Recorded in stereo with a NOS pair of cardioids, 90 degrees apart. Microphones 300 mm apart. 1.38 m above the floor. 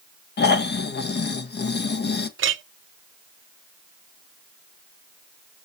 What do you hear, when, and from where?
0.4 s snoring: 35° left, 1.2 m
2.4 s a clink: 45° right, 0.7 m